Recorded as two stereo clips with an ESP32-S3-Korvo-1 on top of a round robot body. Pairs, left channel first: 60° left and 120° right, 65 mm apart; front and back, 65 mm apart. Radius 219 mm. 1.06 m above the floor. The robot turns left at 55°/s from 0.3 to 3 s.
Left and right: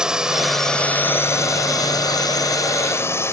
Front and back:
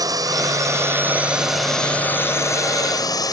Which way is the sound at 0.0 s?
160° left.